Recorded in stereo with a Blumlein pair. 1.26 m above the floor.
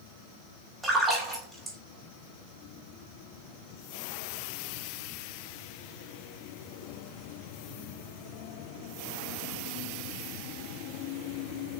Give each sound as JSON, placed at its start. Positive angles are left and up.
{"t": 0.8, "sound": "a splash", "azimuth_deg": -5, "distance_m": 4.5}